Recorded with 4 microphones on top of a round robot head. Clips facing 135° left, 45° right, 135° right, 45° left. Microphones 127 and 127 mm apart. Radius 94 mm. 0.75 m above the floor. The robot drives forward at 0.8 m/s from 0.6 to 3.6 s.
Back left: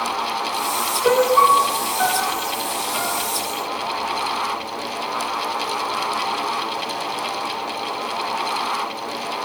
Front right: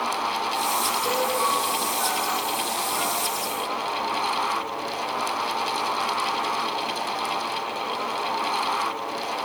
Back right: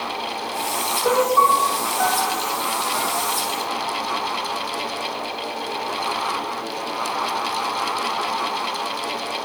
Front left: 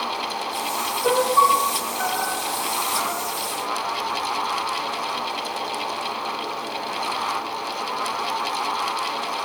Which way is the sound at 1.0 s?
130° left.